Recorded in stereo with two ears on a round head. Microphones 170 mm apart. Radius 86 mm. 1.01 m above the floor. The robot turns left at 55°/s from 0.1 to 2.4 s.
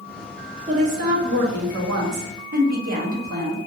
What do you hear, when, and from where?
0.7 s a woman speaking: 30° right, 0.8 m; by 3.6 s 125° right, 0.8 m